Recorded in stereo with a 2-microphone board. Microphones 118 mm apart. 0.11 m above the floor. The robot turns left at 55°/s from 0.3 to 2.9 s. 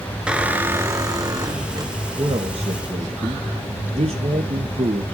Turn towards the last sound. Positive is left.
turn(degrees=-85)